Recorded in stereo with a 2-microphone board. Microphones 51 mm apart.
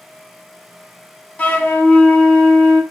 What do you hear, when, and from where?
1.4 s a flute: 30° left (ahead or behind), 0.7 m